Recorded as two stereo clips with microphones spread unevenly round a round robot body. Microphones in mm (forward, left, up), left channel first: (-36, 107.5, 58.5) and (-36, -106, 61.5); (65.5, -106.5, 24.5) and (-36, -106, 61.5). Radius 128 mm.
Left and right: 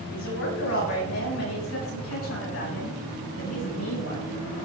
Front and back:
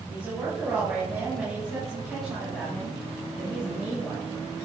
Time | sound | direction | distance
0.1 | a woman speaking | 90° left | 6.5 m